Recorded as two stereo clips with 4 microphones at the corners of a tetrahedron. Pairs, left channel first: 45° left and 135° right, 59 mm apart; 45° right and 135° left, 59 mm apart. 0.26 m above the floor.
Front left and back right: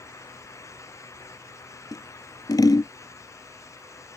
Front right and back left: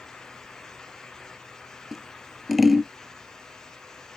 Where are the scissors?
50° left.